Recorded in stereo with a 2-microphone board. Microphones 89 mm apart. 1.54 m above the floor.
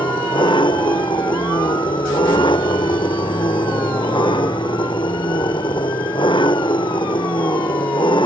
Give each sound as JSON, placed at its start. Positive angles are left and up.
{"t": 0.0, "sound": "an engine running", "side_deg": 65}